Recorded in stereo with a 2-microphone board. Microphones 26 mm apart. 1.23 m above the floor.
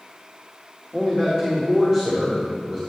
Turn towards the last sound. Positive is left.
turn(degrees=5)  # may be behind; listen again after turning